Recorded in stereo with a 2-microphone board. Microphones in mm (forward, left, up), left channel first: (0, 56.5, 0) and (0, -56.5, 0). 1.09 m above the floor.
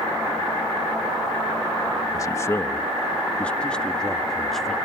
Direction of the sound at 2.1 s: 30° left (ahead or behind).